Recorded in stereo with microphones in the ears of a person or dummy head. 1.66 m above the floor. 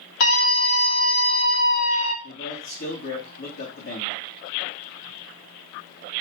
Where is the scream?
75° left (ahead or behind), 5 m.